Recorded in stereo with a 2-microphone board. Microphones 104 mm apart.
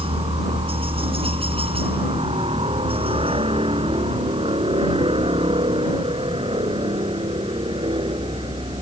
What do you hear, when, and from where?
0.0 s a helicopter: 65° right (ahead or behind); by 8.8 s 55° right (ahead or behind)